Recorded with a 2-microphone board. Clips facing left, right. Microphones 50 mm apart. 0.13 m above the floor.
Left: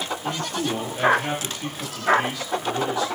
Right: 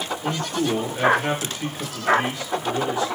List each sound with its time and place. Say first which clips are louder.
0.2 s a man speaking: right 4 dB; 35° right (ahead or behind), 2.5 m